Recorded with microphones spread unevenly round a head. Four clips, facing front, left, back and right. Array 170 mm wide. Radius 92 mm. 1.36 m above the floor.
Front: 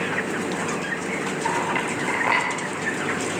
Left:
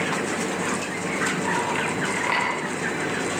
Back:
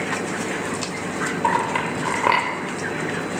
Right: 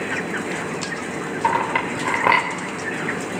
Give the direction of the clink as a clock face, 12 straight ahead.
4 o'clock.